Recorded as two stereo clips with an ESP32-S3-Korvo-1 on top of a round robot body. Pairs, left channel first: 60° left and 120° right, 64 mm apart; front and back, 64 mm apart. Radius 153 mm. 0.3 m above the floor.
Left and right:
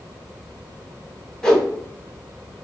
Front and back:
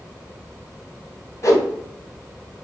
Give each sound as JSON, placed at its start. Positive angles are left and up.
{"t": 1.4, "sound": "a whoosh", "azimuth_deg": -20, "distance_m": 1.6}